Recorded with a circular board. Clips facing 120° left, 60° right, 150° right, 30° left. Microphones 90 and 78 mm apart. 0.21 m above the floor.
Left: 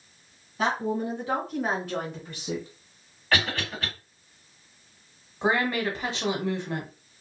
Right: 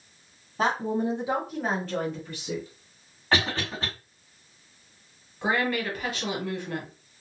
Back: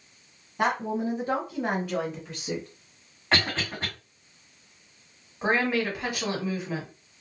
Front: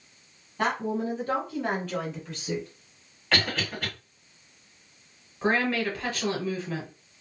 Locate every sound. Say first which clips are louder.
0.6 s a woman speaking: right 1 dB, back 1 dB; 80° right, 1.3 m; by 2.7 s 135° left, 1.3 m
3.3 s a cough: right 1 dB, back 1 dB; 105° right, 2.0 m
5.4 s a woman speaking: left 1 dB, even; 155° left, 1.5 m